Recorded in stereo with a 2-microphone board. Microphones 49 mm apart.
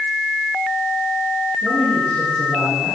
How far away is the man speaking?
About 7.5 m.